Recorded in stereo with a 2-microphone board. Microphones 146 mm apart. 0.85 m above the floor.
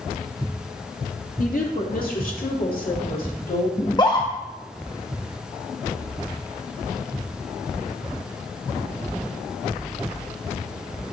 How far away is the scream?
About 0.7 m.